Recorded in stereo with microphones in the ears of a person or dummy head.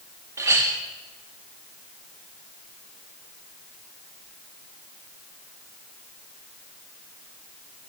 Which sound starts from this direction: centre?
A clink, at 0.4 s.